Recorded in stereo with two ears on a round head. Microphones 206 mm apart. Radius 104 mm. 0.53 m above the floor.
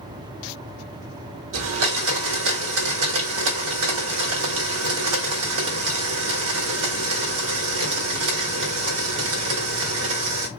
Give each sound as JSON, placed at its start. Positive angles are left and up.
{"t": 1.5, "sound": "a blender", "side_deg": -65, "distance_m": 1.1}